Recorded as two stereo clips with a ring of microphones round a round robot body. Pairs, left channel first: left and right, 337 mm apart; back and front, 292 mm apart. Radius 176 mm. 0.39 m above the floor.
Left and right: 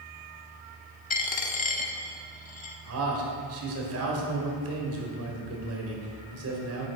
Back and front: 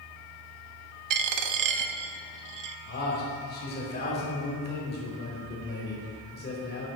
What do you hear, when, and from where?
1.1 s a dropped coin: 20° left, 0.6 m
2.9 s a man speaking: 130° right, 1.9 m